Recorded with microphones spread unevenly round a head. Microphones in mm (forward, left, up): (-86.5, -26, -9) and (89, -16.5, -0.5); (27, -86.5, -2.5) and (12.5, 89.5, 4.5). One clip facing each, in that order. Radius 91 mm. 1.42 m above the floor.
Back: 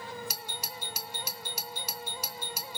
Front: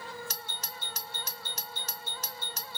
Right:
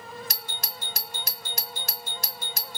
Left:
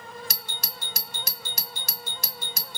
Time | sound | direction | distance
0.3 | a doorbell | 100° left | 0.8 m